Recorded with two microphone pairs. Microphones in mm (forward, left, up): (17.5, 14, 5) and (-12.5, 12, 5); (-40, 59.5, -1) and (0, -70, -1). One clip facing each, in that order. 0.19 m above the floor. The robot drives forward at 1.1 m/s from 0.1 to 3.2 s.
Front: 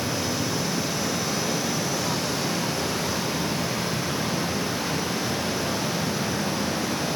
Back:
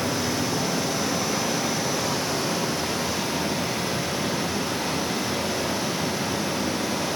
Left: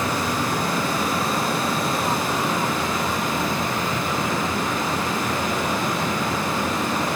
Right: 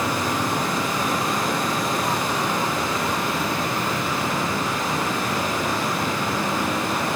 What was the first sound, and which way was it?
Running water, 150° right.